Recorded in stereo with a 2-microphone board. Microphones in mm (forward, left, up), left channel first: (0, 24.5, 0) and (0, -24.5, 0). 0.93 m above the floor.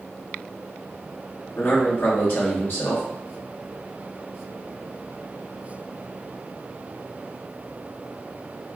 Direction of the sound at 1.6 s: 55° left (ahead or behind).